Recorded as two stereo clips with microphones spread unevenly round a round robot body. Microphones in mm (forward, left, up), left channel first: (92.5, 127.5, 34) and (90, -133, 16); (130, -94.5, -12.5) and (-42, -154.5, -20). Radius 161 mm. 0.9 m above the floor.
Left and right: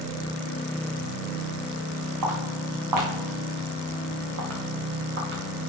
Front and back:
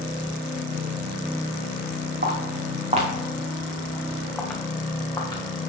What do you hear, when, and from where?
2.2 s footsteps: 125° right, 3.5 m; by 5.4 s 45° right, 4 m